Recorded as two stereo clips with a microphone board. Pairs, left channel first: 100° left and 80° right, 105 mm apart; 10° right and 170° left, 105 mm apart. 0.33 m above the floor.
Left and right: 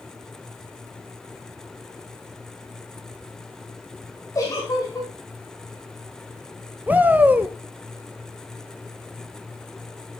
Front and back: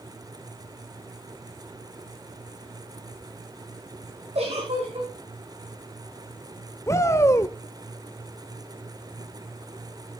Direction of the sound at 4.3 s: 155° left.